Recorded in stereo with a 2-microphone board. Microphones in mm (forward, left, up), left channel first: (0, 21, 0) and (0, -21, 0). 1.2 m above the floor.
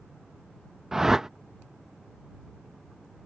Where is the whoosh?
10° right (ahead or behind).